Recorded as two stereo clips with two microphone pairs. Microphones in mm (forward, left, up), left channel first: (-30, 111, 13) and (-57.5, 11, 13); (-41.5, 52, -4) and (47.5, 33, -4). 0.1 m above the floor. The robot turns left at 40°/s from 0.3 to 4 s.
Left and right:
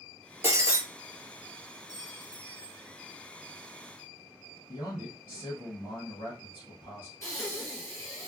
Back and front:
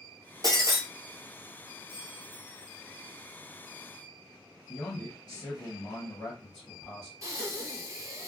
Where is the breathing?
25° left, 1.6 m.